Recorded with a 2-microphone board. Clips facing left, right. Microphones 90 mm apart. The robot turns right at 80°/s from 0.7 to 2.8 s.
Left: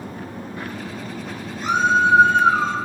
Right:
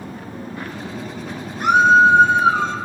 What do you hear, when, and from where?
1.6 s a scream: 75° right, 3 m; by 2.7 s 15° left, 3 m